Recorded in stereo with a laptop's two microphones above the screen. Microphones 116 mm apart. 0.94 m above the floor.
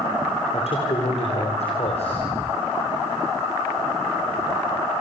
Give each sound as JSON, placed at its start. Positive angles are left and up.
{"t": 0.5, "sound": "a man speaking", "side_deg": 65, "distance_m": 3.5}